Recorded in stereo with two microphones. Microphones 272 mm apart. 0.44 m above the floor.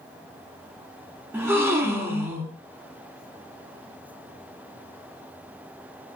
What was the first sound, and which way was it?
A gasp, 10° right (ahead or behind).